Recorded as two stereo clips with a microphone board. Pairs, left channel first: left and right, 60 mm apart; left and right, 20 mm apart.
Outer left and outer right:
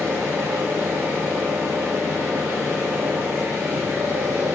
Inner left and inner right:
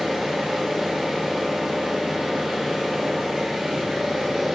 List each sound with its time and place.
0.0 s an engine running: 40° right (ahead or behind), 1.7 m